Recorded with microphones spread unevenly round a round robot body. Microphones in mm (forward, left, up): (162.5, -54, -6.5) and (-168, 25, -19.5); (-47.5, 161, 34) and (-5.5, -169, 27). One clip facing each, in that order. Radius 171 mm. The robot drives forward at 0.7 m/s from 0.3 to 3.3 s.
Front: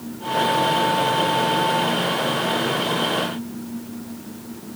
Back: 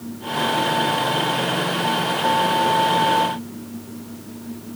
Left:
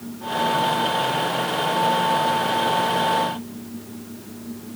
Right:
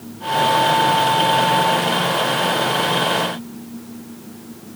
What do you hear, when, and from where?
Only background noise.